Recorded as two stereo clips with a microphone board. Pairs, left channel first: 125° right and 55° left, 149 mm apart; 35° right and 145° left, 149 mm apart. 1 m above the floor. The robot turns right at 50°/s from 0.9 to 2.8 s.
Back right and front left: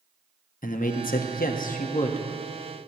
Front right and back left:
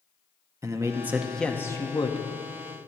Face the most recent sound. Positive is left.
turn(degrees=-50)